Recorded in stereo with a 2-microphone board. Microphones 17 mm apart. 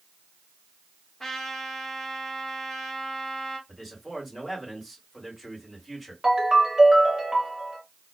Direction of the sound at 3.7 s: 5° left (ahead or behind).